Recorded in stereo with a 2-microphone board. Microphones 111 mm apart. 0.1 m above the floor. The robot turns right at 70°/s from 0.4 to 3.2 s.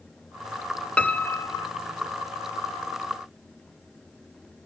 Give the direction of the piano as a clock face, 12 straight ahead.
12 o'clock.